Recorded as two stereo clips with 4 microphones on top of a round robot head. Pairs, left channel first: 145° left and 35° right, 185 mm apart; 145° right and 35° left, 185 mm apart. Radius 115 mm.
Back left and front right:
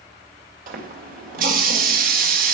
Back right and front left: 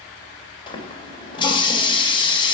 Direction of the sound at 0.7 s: 80° right.